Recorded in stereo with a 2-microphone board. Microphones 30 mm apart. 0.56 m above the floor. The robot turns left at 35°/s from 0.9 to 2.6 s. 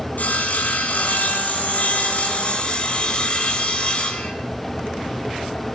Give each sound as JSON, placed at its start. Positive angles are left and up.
{"t": 0.2, "sound": "sawing", "azimuth_deg": 105, "distance_m": 3.5}